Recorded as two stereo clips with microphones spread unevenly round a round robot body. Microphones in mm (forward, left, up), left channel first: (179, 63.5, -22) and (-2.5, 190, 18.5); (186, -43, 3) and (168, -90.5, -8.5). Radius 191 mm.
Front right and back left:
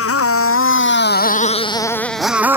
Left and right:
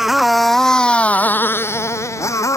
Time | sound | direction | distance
0.0 | a motorcycle | 25° right | ?